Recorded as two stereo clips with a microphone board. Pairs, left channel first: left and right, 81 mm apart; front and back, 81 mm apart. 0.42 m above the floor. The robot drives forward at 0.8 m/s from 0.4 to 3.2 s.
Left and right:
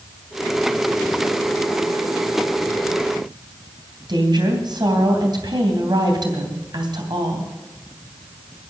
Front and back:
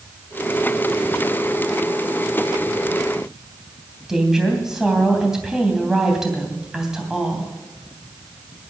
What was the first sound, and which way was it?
A woman speaking, 95° right.